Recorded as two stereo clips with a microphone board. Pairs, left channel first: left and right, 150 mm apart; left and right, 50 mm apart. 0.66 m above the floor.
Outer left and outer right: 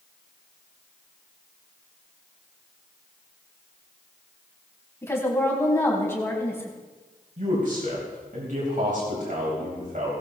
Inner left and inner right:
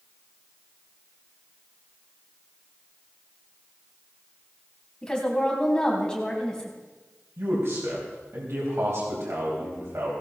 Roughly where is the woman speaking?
Centre.